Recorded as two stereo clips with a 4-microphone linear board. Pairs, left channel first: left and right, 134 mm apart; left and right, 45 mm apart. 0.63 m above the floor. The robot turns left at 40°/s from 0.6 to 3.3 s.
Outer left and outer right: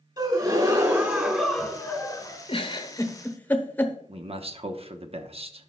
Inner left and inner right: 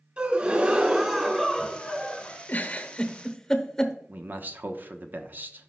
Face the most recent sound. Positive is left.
turn(degrees=-45)  # may be behind; listen again after turning